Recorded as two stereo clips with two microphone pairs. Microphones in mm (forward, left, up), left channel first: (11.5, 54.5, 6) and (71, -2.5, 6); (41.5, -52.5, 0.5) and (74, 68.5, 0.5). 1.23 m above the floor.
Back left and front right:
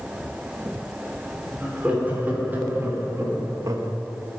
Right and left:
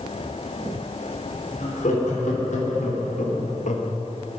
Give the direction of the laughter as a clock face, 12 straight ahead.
4 o'clock.